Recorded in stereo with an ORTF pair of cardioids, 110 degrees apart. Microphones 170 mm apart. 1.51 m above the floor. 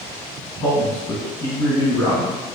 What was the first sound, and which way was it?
A man speaking, 20° left.